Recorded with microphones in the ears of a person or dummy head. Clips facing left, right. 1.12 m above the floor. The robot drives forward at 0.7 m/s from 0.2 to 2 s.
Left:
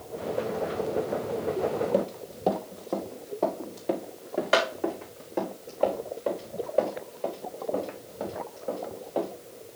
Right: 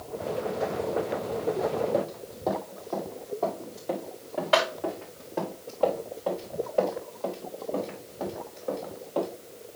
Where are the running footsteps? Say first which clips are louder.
Left 2 dB; 30° left (ahead or behind), 1.2 m; by 9.3 s 15° left (ahead or behind), 5.5 m.